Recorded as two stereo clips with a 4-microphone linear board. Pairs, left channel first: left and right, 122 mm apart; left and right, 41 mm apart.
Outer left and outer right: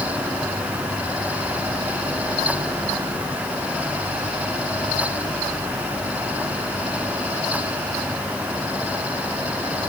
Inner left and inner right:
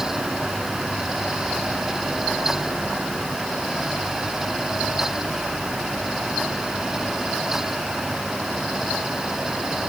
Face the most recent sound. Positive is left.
No sound to turn to.